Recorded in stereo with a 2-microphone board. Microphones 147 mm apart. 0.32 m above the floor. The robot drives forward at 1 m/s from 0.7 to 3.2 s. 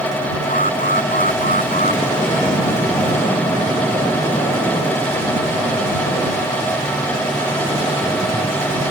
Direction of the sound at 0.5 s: 65° left (ahead or behind).